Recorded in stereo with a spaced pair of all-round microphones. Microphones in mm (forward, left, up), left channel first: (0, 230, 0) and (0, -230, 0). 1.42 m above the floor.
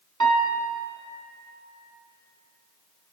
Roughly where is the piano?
Right.